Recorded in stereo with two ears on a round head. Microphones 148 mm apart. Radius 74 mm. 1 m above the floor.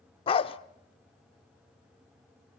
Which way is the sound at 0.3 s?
35° left (ahead or behind).